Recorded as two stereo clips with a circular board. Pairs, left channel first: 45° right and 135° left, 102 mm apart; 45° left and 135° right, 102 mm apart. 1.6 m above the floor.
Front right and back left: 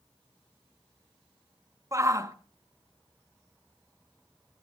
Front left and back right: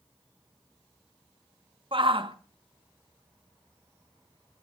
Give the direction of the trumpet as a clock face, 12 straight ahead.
I don't hear a trumpet.